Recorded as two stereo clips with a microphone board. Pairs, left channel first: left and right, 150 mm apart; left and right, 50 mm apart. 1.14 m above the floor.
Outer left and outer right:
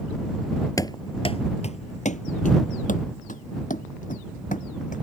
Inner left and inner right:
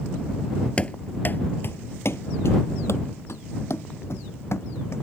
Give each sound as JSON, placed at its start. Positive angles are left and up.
{"t": 0.8, "sound": "running footsteps", "side_deg": 25}